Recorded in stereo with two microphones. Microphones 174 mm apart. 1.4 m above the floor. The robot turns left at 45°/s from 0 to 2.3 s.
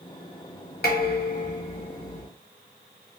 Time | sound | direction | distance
0.8 | dishes clattering | 80° left | 1.1 m